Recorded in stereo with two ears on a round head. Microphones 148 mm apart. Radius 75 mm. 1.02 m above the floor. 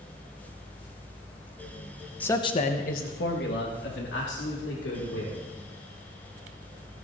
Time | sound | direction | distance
2.2 | a man speaking | 10° left (ahead or behind) | 0.8 m